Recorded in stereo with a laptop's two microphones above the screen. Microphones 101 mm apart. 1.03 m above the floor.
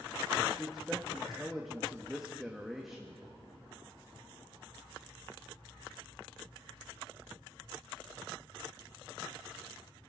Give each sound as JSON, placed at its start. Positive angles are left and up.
{"t": 0.6, "sound": "a man speaking", "side_deg": -5, "distance_m": 1.3}